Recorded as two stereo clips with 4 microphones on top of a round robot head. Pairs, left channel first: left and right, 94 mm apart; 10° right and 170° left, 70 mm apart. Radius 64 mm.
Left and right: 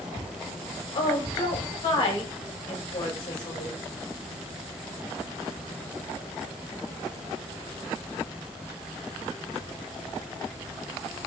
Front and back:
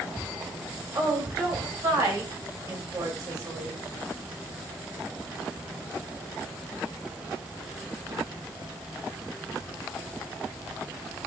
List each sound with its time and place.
0.9 s a woman speaking: 125° left, 6.5 m